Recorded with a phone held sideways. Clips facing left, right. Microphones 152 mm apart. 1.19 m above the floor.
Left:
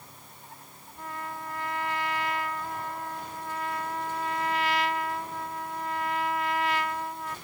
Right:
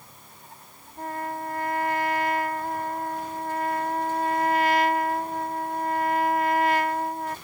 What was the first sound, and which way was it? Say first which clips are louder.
A trumpet: right 6 dB; 55° right (ahead or behind).